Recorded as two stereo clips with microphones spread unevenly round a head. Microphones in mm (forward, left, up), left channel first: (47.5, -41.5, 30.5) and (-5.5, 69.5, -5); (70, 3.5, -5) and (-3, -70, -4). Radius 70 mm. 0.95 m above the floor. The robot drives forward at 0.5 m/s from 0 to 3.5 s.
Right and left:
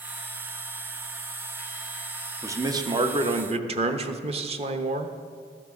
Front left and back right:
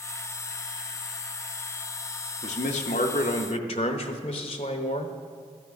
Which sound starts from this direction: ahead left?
A man speaking, at 2.4 s.